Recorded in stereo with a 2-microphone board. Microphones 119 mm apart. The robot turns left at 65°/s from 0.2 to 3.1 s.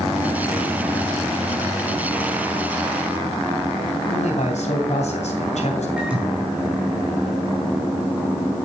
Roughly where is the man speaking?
Left.